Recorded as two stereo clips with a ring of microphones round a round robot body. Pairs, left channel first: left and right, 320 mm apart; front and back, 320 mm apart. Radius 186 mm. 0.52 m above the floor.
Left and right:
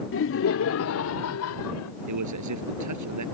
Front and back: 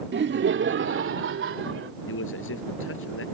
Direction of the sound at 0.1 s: 130° left.